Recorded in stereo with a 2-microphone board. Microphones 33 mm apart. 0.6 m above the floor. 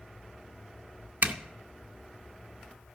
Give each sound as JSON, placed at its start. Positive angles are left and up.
{"t": 1.2, "sound": "a zipper", "side_deg": -60, "distance_m": 0.7}